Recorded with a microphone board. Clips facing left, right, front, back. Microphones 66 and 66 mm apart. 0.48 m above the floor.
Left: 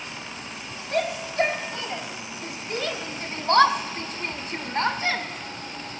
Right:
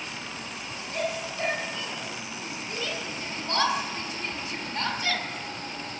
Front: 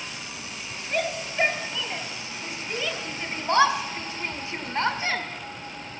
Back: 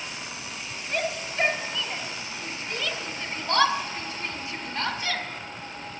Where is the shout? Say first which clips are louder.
Left 6 dB, front 2 dB; 85° left, 3.5 m; by 5.2 s 45° left, 1.7 m.